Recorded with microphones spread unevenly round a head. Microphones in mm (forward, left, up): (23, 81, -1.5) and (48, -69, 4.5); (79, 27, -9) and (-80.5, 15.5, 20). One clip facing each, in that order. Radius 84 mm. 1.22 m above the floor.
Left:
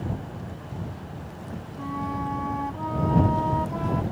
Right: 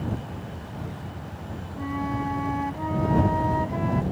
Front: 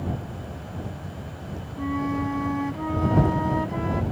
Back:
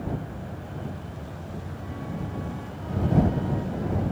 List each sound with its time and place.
1.8 s a flute: straight ahead